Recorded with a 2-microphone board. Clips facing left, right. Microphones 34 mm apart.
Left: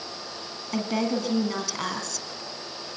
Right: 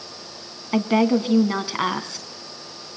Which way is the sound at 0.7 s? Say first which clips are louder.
Right 8 dB; 30° right (ahead or behind).